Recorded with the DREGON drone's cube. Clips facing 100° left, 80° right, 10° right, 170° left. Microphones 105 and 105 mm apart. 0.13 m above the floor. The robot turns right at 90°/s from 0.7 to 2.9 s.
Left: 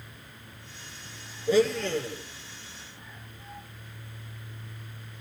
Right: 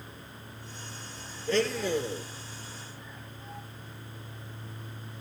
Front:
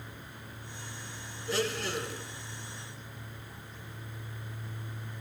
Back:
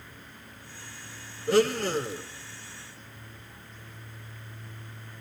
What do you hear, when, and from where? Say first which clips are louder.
1.5 s a blender: left 4 dB, back 9 dB; 170° left, 0.7 m; by 2.2 s 120° right, 0.7 m